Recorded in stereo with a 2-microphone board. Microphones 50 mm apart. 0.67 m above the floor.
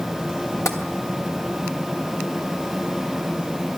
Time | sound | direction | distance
0.7 | tapping | 75° left (ahead or behind) | 2.5 m